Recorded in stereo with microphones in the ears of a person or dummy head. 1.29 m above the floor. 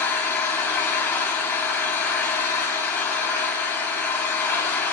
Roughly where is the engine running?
Centre.